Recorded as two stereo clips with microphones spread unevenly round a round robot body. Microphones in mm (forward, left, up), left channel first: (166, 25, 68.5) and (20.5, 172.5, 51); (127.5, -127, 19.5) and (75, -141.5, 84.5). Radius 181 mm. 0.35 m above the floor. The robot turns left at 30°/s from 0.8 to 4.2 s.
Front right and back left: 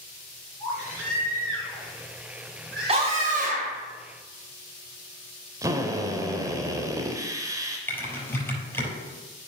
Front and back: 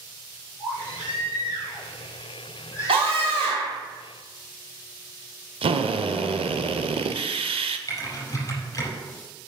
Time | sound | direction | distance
0.6 | a baby crying | 165° left | 3.5 m
2.9 | a scream | 175° right | 1.9 m
5.6 | a drill | 160° right | 0.6 m
7.9 | typing on a keyboard | 35° left | 4.5 m